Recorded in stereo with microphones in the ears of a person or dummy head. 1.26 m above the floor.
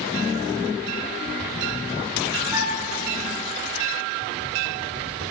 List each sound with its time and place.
2.5 s a flute: 15° right (ahead or behind), 0.8 m